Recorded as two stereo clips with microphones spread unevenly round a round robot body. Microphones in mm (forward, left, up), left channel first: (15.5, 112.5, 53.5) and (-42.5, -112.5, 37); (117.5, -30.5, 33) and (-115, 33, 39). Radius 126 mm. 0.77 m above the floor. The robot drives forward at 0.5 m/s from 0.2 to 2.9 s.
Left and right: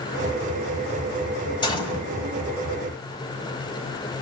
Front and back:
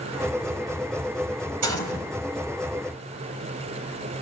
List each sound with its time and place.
1.6 s a gunshot: 145° left, 6 m